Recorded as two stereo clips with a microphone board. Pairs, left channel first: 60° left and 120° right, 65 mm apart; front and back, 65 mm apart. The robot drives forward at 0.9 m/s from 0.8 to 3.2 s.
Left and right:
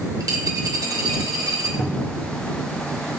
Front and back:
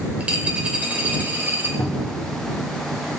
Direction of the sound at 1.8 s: 35° right.